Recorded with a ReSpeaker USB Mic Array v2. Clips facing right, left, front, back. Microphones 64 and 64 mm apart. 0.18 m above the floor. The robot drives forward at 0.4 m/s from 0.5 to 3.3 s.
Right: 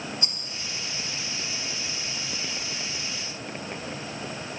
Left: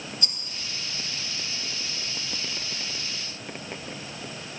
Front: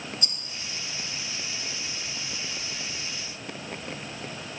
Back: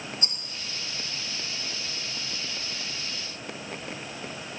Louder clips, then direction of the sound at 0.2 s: Even, even; 140° right.